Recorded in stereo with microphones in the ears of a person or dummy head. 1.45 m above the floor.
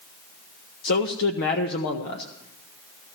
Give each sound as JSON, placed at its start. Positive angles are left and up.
{"t": 0.8, "sound": "a man speaking", "side_deg": 55, "distance_m": 1.0}